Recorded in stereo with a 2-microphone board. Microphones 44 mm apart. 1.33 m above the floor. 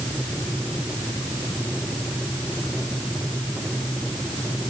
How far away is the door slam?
No door slam in this recording.